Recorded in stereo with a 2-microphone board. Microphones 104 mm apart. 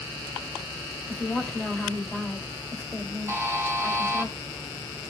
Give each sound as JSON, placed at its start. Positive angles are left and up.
{"t": 1.1, "sound": "a woman speaking", "side_deg": 10, "distance_m": 1.7}
{"t": 3.3, "sound": "a buzzer", "side_deg": -25, "distance_m": 1.0}